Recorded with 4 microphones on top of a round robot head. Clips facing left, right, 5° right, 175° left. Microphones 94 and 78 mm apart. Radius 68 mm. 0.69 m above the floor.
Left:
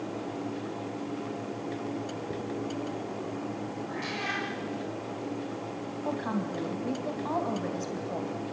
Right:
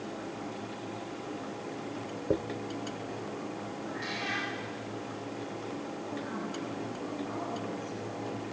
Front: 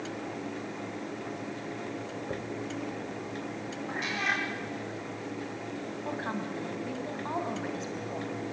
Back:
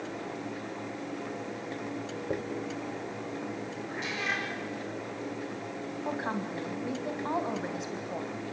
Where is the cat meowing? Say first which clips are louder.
Left 2 dB, front 3 dB; 35° left, 6.5 m.